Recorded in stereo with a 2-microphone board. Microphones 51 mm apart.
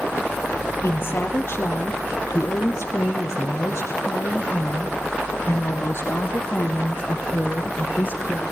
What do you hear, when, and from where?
0.8 s a woman speaking: 45° left (ahead or behind), 3 m; by 8.4 s 50° left (ahead or behind), 4.5 m